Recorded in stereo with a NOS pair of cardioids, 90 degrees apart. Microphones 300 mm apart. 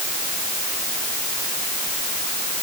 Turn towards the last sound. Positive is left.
No sound to turn to.